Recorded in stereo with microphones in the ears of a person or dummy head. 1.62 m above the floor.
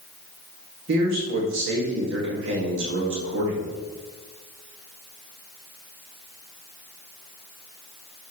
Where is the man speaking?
70° right (ahead or behind), 2.5 m.